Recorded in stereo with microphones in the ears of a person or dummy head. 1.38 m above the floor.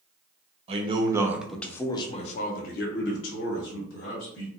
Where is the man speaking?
35° right (ahead or behind), 0.9 m; by 4.5 s 80° left, 1.7 m.